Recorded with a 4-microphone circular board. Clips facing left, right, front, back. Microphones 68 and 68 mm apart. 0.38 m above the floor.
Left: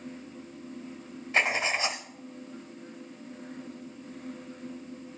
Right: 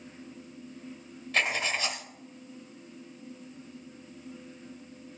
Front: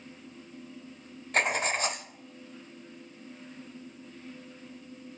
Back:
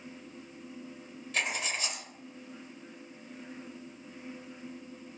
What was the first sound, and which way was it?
Writing, 30° left.